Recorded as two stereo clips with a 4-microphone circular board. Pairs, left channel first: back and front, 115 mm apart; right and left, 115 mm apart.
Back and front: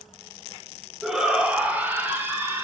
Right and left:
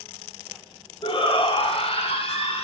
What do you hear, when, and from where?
1.0 s a shout: 85° right, 1.0 m; by 2.6 s 65° right, 2 m